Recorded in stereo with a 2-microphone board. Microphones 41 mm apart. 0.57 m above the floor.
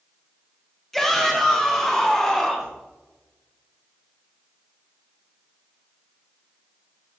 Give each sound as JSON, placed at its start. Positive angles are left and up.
{"t": 0.9, "sound": "a shout", "side_deg": 5, "distance_m": 2.5}